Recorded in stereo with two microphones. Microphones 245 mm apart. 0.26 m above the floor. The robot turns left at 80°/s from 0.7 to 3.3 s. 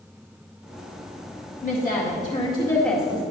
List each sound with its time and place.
1.6 s a woman speaking: 110° left, 1.5 m; by 3.2 s 20° right, 1.5 m